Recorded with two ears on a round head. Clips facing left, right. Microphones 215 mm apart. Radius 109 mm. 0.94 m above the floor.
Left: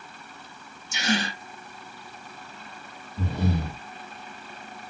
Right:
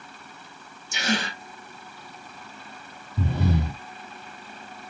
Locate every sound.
0.9 s a gasp: 45° right (ahead or behind), 1.7 m
3.2 s breathing: 55° right (ahead or behind), 2.5 m